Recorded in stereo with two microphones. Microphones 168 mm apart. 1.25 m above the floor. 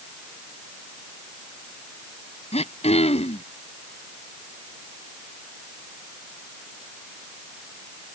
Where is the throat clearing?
40° left (ahead or behind).